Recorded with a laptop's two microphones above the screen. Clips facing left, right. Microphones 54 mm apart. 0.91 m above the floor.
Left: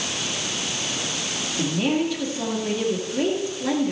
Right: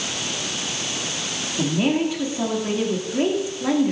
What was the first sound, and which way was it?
A woman speaking, 20° right (ahead or behind).